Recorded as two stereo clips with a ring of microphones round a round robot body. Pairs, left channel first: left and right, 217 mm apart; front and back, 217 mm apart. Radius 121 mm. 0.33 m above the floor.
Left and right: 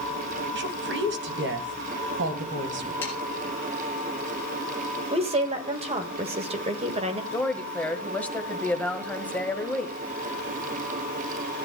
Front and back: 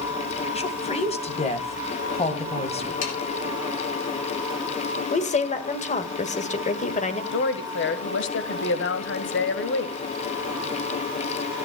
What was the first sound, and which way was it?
A woman speaking, 60° right.